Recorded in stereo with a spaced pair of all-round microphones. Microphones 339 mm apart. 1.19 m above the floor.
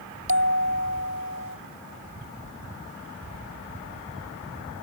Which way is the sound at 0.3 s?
40° right (ahead or behind).